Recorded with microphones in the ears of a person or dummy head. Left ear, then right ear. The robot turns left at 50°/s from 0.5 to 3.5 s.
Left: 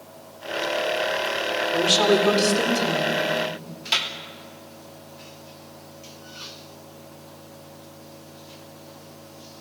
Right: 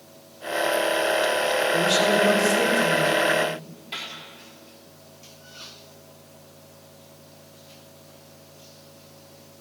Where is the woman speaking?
100° left, 4.5 m; by 3.1 s 30° left, 4.5 m.